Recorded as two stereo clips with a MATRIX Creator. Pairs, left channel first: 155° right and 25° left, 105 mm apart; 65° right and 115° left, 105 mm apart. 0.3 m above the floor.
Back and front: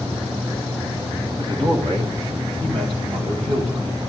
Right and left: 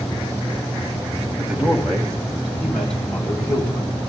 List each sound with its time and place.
1.4 s a man speaking: 30° left, 2 m; by 3.9 s 10° left, 3 m